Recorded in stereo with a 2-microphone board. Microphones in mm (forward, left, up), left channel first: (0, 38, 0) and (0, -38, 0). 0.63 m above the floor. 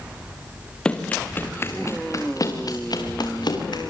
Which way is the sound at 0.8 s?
10° left (ahead or behind).